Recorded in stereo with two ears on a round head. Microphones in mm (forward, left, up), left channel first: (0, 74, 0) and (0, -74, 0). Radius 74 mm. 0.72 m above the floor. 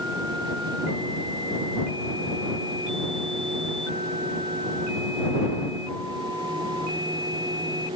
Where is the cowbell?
I don't hear a cowbell.